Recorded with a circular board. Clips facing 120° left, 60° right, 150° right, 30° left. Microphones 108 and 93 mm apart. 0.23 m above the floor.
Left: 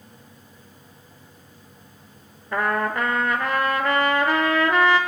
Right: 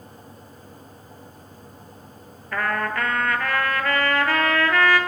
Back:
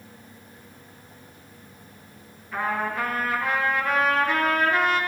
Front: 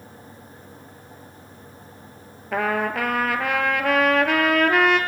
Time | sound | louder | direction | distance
2.5 | a trumpet | left 2 dB, front 4 dB | 50° left | 0.9 m